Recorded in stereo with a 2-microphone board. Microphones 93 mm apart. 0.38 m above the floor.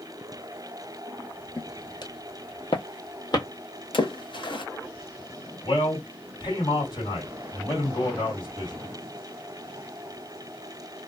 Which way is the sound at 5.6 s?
50° left (ahead or behind).